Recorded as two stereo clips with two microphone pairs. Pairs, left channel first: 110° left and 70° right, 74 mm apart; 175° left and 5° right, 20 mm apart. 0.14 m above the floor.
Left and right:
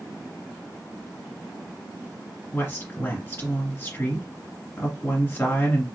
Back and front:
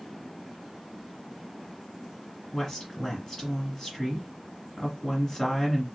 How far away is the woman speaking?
About 1.8 m.